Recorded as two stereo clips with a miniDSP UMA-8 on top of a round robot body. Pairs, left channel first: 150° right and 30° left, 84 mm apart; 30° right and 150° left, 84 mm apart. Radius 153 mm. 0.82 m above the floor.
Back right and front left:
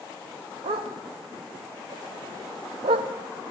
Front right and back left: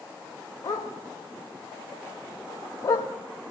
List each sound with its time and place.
0.6 s a dog barking: 25° left, 1.1 m